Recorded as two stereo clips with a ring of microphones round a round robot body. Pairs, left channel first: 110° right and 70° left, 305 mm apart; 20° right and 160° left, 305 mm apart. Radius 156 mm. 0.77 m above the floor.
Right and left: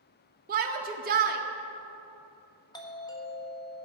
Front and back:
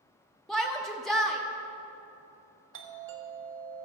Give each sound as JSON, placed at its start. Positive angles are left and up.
{"t": 0.5, "sound": "a shout", "azimuth_deg": 65, "distance_m": 0.7}
{"t": 2.7, "sound": "a doorbell", "azimuth_deg": 175, "distance_m": 1.5}